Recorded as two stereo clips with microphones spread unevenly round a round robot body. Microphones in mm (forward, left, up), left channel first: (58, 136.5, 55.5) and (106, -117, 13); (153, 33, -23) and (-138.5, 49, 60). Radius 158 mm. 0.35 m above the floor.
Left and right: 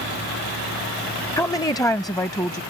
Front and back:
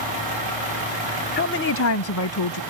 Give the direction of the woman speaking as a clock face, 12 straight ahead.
11 o'clock.